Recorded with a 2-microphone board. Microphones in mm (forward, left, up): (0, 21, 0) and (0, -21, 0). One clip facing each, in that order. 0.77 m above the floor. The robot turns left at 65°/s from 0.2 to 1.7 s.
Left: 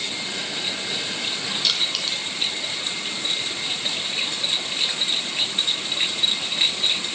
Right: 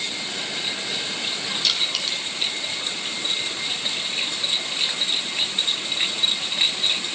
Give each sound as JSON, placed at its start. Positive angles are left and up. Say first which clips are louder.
{"t": 1.6, "sound": "crushing", "louder": "even", "side_deg": 0, "distance_m": 3.5}